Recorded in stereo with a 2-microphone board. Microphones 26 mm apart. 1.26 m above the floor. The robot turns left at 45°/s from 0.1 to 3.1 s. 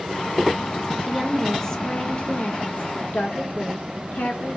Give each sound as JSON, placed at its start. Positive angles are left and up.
{"t": 1.1, "sound": "a woman speaking", "azimuth_deg": -170, "distance_m": 1.4}